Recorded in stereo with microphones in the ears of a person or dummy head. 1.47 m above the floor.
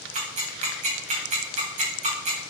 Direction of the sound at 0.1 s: 40° right (ahead or behind).